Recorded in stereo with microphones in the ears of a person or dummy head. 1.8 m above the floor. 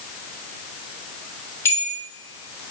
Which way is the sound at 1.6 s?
20° left (ahead or behind).